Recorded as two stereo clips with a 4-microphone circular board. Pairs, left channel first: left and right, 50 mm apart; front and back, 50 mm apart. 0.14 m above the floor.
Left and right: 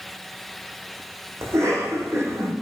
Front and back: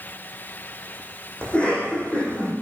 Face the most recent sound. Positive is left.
turn(degrees=-65)